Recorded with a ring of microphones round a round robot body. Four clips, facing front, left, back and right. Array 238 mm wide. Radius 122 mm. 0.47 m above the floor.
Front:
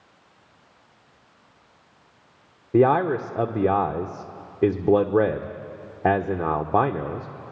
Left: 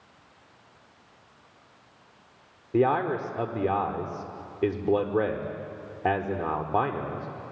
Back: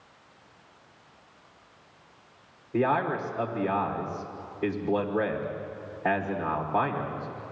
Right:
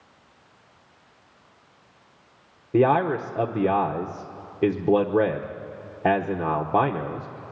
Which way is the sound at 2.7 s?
25° right.